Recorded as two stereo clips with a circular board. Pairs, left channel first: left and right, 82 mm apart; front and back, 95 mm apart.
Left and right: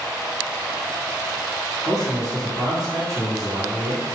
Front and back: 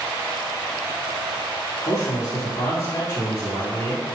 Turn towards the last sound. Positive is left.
turn(degrees=-50)